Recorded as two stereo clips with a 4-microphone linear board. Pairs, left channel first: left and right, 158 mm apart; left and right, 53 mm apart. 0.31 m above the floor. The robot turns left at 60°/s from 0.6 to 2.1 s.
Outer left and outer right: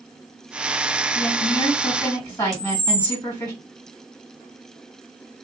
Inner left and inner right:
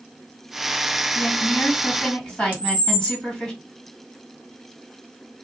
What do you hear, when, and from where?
1.1 s a woman speaking: 80° left, 1.9 m; by 3.5 s 25° left, 1.9 m
2.5 s a camera shutter: 25° right (ahead or behind), 1.3 m